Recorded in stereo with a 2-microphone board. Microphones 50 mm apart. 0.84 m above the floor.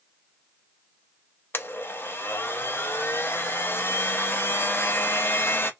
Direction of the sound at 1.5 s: 45° left (ahead or behind).